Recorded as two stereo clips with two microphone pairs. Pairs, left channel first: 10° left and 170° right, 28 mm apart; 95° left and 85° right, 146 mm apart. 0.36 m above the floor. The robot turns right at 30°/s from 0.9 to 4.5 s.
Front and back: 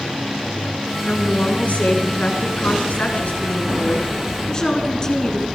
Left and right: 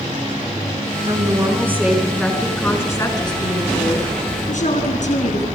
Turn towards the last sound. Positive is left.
turn(degrees=75)